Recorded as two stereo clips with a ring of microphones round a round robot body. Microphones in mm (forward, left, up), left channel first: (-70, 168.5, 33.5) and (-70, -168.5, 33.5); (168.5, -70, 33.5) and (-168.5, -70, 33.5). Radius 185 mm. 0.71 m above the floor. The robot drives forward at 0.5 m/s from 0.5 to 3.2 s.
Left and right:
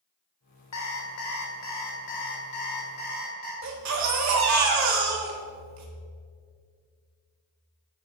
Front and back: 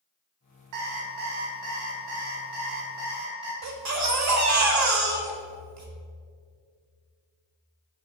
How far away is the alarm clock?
About 1.6 m.